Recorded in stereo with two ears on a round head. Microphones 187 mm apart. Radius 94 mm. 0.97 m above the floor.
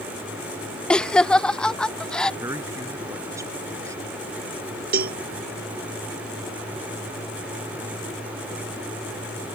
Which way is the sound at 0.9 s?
5° left (ahead or behind).